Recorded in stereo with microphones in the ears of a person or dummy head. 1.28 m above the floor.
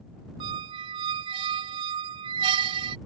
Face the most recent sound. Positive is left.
turn(degrees=-30)  # may be behind; listen again after turning